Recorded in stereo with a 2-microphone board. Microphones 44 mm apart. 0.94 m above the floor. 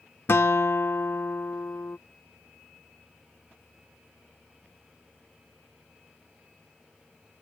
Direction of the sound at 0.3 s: 65° left (ahead or behind).